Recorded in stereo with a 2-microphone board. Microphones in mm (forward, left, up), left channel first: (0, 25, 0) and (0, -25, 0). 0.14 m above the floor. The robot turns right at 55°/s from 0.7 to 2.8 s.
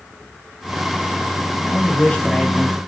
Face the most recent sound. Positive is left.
turn(degrees=-165)